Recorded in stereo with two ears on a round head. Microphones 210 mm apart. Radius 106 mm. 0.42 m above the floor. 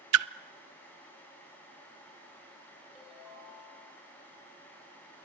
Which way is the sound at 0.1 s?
65° right (ahead or behind).